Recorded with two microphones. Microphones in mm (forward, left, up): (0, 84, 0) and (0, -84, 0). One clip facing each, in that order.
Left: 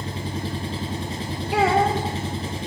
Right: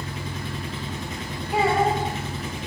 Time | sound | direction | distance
0.0 | an engine running | 30° left (ahead or behind) | 2.5 m
1.5 | a child speaking | 75° left (ahead or behind) | 9 m